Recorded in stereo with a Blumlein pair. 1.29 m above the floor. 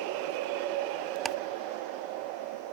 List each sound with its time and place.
1.2 s ticking: 20° right